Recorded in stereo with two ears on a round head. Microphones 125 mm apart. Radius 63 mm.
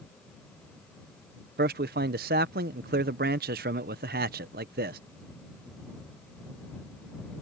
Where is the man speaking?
80° right.